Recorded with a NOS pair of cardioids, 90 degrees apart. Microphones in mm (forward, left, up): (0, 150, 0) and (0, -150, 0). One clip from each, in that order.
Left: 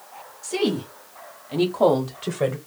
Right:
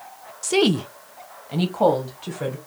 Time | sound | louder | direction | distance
0.4 | a woman speaking | right 5 dB | 60° right | 0.8 m